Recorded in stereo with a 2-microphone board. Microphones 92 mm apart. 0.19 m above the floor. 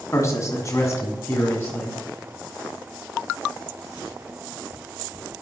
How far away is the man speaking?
About 1.6 m.